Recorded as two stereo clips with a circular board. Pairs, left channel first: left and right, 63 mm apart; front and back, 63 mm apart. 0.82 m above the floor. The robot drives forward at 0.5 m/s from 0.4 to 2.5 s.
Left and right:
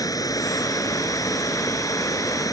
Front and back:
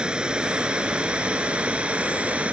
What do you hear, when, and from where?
0.0 s running water: 100° left; by 2.5 s 105° left